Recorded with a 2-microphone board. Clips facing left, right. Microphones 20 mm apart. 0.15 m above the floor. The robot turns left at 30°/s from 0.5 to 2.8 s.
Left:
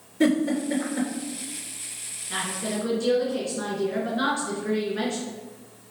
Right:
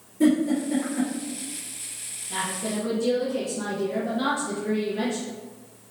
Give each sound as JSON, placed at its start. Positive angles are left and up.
{"t": 0.2, "sound": "a giggle", "side_deg": 55, "distance_m": 3.0}
{"t": 2.3, "sound": "a woman speaking", "side_deg": 50, "distance_m": 2.5}